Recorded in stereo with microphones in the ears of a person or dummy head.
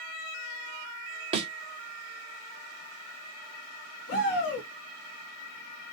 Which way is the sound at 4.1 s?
55° left (ahead or behind).